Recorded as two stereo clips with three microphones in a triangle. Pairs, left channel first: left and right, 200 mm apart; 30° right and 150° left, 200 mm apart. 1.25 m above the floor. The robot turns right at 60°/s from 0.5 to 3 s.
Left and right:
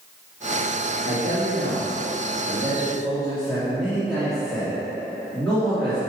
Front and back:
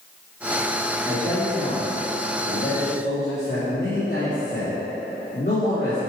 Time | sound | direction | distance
1.1 | a man speaking | 115° right | 3 m